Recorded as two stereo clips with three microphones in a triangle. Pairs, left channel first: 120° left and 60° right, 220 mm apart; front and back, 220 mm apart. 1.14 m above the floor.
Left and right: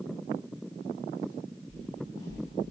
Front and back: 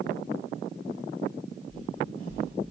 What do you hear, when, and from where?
1.7 s footsteps: 165° right, 5 m